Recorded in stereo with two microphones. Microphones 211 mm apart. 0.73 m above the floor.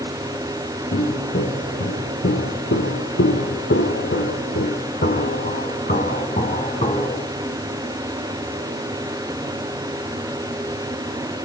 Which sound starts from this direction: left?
Footsteps, at 0.9 s.